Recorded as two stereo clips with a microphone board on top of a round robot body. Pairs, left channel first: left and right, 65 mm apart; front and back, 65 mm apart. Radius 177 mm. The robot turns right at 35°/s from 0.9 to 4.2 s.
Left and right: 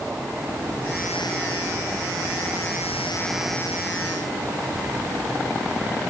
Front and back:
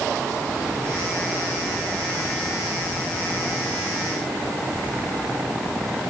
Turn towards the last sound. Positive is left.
No sound to turn to.